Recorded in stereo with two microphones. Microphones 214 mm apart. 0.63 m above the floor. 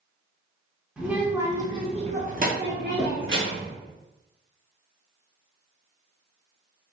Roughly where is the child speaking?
Centre.